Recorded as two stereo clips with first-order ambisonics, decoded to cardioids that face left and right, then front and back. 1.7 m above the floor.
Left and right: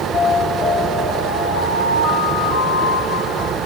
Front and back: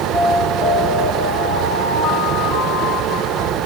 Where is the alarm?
50° left, 6 m.